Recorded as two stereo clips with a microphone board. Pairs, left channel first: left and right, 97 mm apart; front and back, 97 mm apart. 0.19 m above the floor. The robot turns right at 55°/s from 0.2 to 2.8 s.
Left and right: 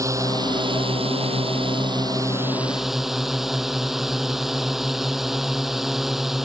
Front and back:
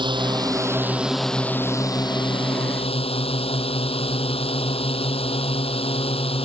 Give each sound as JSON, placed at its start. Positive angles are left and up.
{"t": 0.0, "sound": "a drone", "azimuth_deg": -145}